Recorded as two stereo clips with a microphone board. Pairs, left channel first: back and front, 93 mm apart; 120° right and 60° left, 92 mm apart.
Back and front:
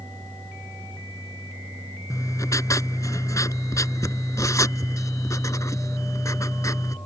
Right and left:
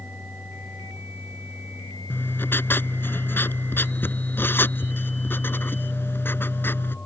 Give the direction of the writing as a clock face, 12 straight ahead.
6 o'clock.